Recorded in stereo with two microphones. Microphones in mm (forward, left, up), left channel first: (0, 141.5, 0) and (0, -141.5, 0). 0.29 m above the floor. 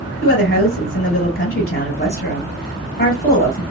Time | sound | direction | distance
0.2 | a woman speaking | 40° left (ahead or behind) | 1.9 m